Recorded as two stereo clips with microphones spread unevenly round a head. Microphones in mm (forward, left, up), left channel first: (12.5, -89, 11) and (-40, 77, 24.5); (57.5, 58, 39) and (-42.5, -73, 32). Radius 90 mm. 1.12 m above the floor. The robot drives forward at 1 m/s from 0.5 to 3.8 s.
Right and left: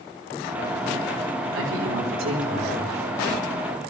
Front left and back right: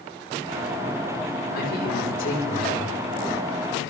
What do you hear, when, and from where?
1.5 s a man speaking: 85° left, 4.5 m; by 3.0 s 105° left, 4.5 m